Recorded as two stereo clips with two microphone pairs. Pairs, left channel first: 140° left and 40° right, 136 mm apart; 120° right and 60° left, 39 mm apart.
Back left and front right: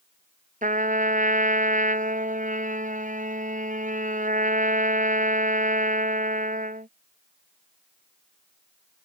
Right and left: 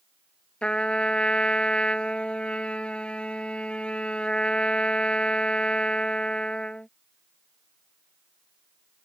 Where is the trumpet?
55° right.